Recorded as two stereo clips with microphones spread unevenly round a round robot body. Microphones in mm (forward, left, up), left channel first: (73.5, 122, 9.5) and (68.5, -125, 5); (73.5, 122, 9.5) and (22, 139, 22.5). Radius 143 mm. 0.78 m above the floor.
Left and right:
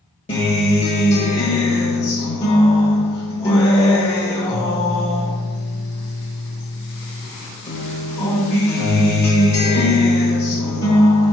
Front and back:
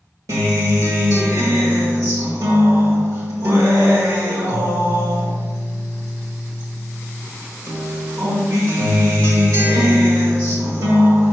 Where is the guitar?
160° left, 1.3 m.